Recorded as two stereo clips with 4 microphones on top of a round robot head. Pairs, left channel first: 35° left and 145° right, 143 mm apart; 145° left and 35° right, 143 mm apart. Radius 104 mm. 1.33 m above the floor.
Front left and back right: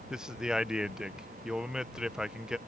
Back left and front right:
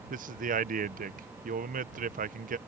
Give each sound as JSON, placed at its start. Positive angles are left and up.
{"t": 0.1, "sound": "a man speaking", "azimuth_deg": -60}